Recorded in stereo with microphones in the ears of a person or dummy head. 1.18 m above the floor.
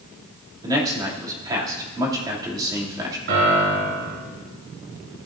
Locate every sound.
0.6 s a man speaking: 25° right (ahead or behind), 2.5 m
3.3 s a piano: 70° right (ahead or behind), 4 m